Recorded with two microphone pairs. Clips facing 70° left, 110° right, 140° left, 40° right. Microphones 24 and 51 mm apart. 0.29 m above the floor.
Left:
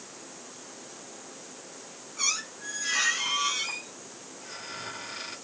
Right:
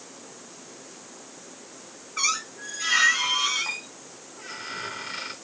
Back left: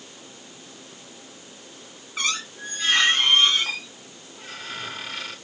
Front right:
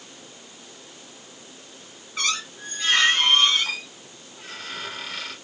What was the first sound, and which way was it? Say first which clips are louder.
A squeak: right 4 dB, even; 135° right.